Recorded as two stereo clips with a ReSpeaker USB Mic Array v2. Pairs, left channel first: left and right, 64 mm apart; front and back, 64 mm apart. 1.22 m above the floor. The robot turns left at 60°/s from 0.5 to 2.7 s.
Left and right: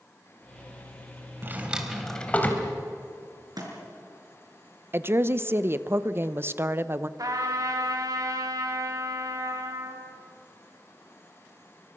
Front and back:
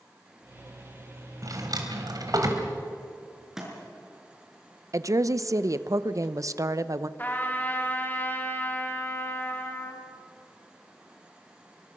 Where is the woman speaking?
145° right, 0.8 m.